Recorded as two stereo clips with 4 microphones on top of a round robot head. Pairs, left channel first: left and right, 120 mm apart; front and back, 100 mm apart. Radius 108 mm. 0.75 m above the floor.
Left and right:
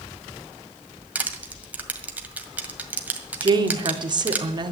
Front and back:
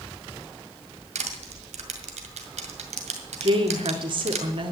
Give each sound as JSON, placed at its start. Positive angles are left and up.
{"t": 1.1, "sound": "crushing", "azimuth_deg": -170, "distance_m": 1.9}
{"t": 3.4, "sound": "a woman speaking", "azimuth_deg": -140, "distance_m": 1.9}